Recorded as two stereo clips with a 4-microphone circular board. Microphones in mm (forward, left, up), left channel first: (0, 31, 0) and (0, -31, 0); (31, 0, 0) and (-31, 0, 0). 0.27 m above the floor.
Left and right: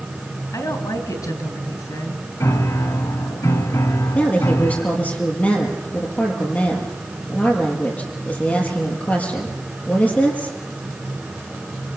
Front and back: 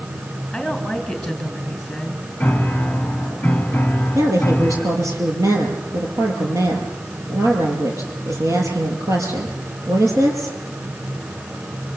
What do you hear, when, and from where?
0.5 s a woman speaking: 90° left, 3.5 m
2.4 s a piano: 70° left, 1.4 m
4.2 s a woman speaking: 150° left, 5.5 m